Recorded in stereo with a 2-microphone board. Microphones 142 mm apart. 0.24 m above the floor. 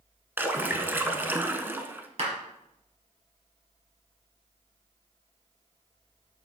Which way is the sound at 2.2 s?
45° right (ahead or behind).